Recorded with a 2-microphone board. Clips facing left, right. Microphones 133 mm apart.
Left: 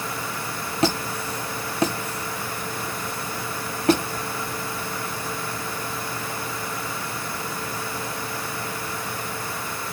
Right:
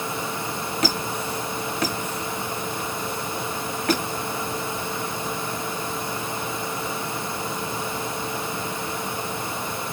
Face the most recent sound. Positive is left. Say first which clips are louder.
# left 4 dB
turn(degrees=30)  # may be behind; listen again after turning